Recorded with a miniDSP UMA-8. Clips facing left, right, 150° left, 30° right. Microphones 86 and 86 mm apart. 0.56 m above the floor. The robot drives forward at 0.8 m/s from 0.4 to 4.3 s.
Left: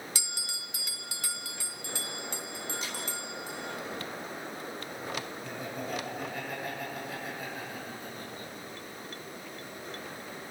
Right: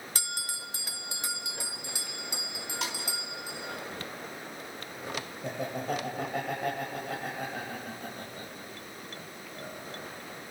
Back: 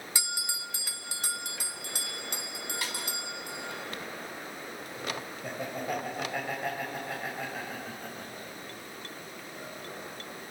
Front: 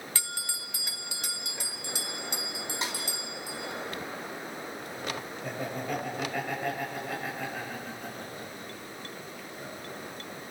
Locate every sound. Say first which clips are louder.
0.1 s a bell: right 4 dB, back 2 dB; 135° right, 0.7 m; by 3.8 s 170° right, 3 m
2.8 s a snare drum: right 3 dB, front 3 dB; 95° right, 4.5 m; by 3.0 s 100° right, 4.5 m
5.4 s laughter: right 4 dB, even; 125° right, 3 m